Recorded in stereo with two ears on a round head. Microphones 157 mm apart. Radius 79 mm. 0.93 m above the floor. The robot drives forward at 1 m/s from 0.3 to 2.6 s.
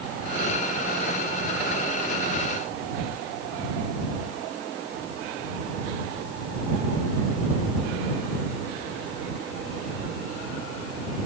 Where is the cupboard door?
No cupboard door in this recording.